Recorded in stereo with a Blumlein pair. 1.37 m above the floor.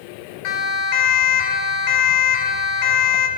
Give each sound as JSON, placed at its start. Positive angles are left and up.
{"t": 0.4, "sound": "a siren", "azimuth_deg": 45, "distance_m": 5.0}